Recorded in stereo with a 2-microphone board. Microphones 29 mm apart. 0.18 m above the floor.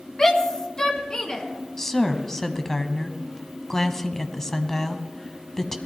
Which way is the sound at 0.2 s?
20° left (ahead or behind).